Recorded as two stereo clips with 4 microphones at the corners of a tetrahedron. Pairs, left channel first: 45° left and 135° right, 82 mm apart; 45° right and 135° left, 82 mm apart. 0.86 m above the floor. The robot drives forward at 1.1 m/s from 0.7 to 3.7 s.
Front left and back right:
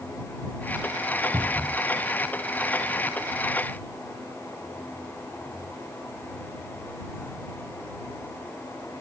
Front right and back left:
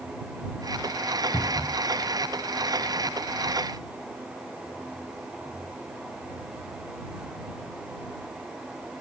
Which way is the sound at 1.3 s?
85° right.